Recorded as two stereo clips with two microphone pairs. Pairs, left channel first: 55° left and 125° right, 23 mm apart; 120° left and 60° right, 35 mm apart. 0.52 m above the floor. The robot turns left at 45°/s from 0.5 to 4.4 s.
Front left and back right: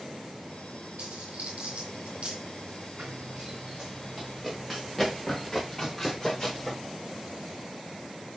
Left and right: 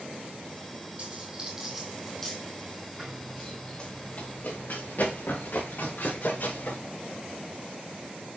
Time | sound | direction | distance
1.0 | a dropped coin | 105° right | 3.5 m
3.0 | running footsteps | 135° right | 3.5 m